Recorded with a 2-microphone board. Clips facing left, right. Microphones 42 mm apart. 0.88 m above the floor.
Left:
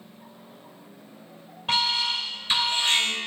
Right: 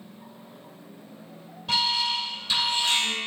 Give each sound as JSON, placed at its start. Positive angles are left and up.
{"t": 1.7, "sound": "an alarm", "side_deg": 35, "distance_m": 3.0}